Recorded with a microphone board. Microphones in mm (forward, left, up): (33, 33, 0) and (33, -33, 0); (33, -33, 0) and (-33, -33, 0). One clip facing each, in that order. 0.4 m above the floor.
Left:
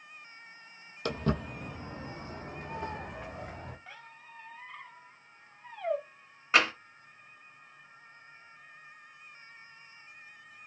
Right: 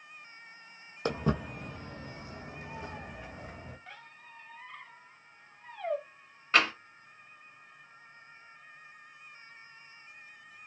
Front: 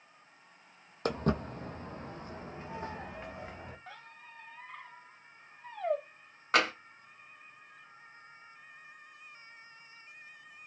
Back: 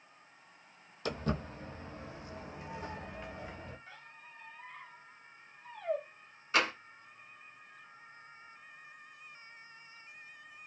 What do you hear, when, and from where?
1.1 s footsteps: 30° right, 0.6 m; by 3.8 s 65° left, 1.4 m
3.9 s a squeak: 5° left, 0.7 m
6.5 s tapping: 10° left, 0.8 m